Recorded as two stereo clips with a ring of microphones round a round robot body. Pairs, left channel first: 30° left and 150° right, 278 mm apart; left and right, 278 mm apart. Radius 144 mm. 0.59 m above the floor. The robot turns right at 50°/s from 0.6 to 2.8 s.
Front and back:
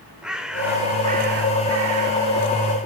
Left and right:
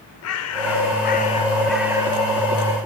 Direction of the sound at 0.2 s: 125° left.